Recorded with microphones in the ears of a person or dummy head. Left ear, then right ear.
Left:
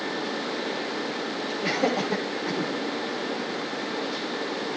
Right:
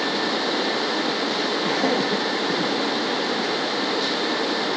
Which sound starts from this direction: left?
Laughter, at 1.6 s.